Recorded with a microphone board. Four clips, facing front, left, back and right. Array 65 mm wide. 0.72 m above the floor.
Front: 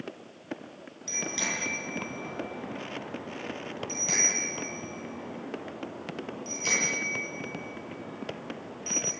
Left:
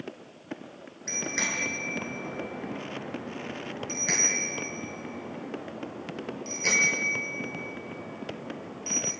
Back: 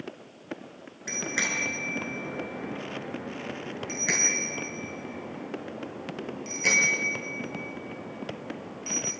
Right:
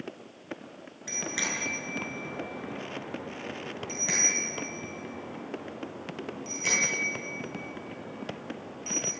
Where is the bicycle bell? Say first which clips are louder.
Left 2 dB, back 3 dB; 165° left, 7 m; by 9.1 s 160° left, 11.5 m.